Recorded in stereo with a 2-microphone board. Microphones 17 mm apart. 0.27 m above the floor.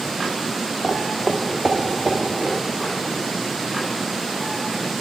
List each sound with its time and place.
0.8 s footsteps: 40° right (ahead or behind), 0.6 m; by 2.6 s 80° right, 1.6 m